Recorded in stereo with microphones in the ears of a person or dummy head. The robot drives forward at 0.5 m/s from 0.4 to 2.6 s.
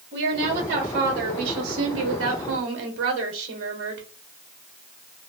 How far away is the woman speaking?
About 1.2 m.